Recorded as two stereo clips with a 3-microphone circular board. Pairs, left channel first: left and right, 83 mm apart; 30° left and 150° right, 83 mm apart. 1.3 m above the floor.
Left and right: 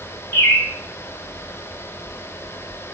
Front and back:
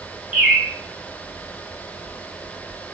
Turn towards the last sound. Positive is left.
turn(degrees=145)